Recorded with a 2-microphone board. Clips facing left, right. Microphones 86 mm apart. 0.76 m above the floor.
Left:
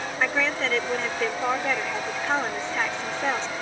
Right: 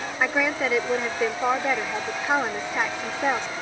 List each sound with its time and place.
0.2 s a woman speaking: 10° right (ahead or behind)